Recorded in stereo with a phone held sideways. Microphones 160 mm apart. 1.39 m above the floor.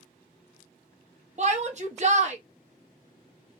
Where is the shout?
45° right (ahead or behind), 0.9 m.